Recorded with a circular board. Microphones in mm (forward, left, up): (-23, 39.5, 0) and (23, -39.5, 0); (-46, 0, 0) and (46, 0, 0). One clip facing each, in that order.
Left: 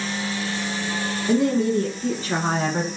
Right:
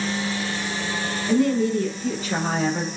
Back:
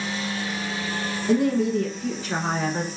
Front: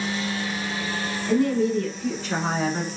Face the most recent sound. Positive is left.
turn(degrees=85)